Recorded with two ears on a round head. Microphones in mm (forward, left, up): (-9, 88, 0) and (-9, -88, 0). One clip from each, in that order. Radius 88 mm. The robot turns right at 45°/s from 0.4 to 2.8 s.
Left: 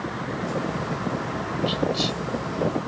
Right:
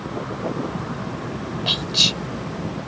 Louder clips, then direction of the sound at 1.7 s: Right 8 dB; 55° right (ahead or behind).